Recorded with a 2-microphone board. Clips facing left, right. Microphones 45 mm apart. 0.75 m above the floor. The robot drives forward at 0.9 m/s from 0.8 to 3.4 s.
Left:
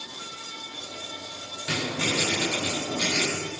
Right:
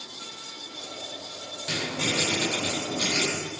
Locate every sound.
1.7 s writing: 20° left (ahead or behind), 3 m; by 3.3 s 15° left (ahead or behind), 4.5 m